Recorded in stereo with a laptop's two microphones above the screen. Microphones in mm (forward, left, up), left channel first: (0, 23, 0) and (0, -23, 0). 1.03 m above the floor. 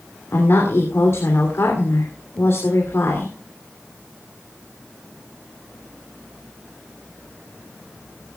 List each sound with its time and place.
0.3 s a woman speaking: 60° left (ahead or behind), 3 m